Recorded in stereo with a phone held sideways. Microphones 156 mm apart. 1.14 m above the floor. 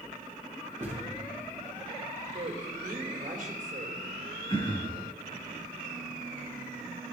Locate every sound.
0.8 s a thud: 15° right (ahead or behind), 8 m
2.3 s a woman speaking: 55° right (ahead or behind), 3 m
4.5 s throat clearing: 35° left (ahead or behind), 3 m